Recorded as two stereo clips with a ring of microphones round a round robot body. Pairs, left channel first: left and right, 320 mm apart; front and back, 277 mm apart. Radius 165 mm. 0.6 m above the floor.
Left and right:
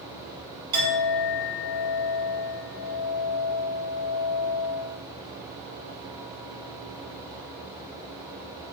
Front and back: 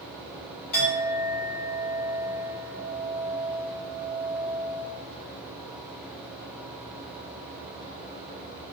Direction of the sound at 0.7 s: 55° right.